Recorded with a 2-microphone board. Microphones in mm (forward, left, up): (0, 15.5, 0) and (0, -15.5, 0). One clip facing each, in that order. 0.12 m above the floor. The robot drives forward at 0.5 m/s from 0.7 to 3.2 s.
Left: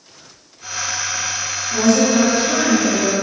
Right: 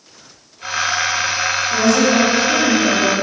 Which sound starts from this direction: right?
A woman speaking, at 1.7 s.